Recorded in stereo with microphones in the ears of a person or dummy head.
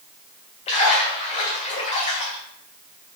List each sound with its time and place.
0.7 s a splash: 40° left (ahead or behind), 1.1 m